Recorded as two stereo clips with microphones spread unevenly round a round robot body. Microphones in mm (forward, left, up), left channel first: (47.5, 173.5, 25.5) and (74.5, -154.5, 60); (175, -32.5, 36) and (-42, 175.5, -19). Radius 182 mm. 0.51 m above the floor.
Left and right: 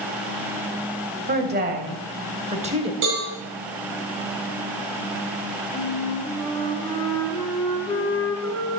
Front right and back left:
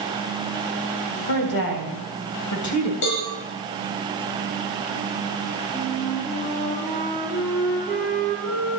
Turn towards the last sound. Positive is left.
turn(degrees=15)